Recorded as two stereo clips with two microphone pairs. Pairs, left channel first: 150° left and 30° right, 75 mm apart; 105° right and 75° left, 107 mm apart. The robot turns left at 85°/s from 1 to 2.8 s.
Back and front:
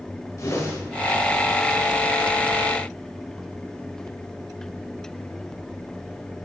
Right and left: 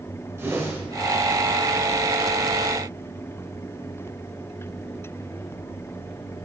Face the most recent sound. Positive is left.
turn(degrees=-20)